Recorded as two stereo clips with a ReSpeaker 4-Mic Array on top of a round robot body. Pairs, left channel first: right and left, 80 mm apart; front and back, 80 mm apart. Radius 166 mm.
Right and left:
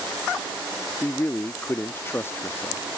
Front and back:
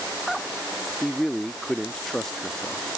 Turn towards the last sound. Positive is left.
turn(degrees=-80)